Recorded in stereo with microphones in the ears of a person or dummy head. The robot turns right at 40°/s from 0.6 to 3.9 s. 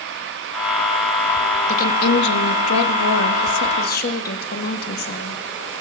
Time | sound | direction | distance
1.7 | a woman speaking | 45° left | 1.2 m